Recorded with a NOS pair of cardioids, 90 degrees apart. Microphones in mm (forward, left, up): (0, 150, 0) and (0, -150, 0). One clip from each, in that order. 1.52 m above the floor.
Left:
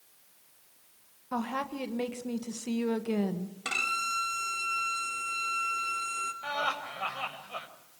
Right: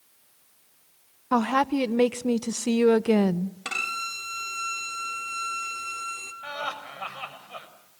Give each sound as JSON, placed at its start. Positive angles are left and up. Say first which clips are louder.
{"t": 1.3, "sound": "a woman speaking", "louder": "right 11 dB", "azimuth_deg": -55, "distance_m": 1.2}
{"t": 3.6, "sound": "a violin", "louder": "even", "azimuth_deg": -5, "distance_m": 4.0}
{"t": 6.4, "sound": "laughter", "louder": "right 1 dB", "azimuth_deg": 5, "distance_m": 6.0}